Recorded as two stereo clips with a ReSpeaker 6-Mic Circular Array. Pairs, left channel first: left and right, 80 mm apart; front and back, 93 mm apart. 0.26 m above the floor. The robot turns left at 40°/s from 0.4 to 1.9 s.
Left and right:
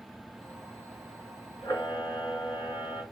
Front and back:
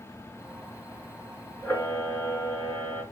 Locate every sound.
1.6 s a camera shutter: 70° left, 2.5 m; by 3.0 s 60° left, 2.5 m